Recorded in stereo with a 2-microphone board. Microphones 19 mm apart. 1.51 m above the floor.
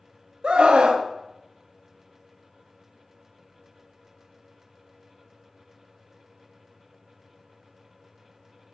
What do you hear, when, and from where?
0.4 s a scream: 55° right (ahead or behind), 0.8 m